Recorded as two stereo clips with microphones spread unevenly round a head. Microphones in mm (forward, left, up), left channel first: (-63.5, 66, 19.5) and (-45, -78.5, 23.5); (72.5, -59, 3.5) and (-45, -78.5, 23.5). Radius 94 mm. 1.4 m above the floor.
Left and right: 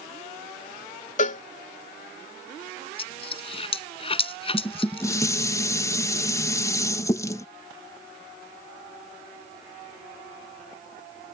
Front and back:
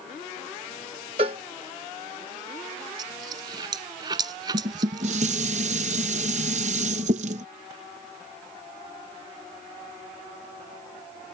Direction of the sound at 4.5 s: 165° left.